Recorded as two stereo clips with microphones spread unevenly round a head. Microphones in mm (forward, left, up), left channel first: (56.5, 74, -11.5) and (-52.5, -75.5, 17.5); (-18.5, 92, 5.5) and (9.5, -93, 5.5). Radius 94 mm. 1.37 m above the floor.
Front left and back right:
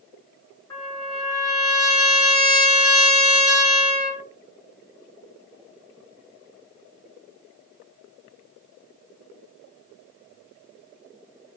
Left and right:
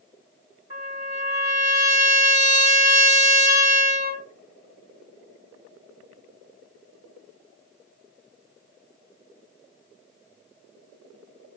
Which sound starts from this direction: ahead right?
A trumpet, at 0.7 s.